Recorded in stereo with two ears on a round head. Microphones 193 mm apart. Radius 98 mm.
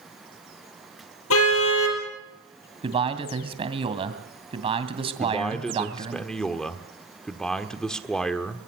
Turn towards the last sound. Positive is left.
turn(degrees=5)  # may be behind; listen again after turning